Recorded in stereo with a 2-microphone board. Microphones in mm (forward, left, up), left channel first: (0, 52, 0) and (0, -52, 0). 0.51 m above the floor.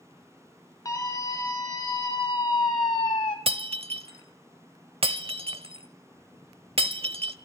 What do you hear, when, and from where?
0.8 s a scream: 35° left (ahead or behind), 2.5 m; by 3.4 s 55° left (ahead or behind), 1.2 m
3.5 s breaking glass: 65° right (ahead or behind), 0.7 m